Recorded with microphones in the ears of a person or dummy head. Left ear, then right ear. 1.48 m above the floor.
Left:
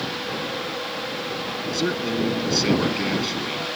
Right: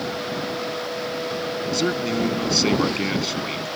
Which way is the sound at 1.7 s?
5° right (ahead or behind).